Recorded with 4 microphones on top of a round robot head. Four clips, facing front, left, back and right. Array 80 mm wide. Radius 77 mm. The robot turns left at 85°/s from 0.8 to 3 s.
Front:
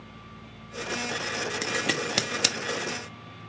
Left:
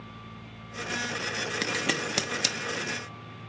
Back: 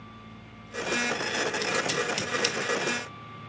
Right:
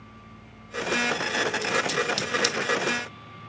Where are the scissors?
70° left, 1.0 m; by 2.5 s 10° right, 1.0 m.